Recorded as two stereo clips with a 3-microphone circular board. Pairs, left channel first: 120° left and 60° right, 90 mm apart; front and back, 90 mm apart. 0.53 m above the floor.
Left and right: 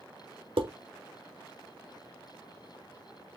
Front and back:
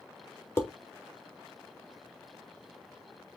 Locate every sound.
0.6 s dishes clattering: 60° right, 0.8 m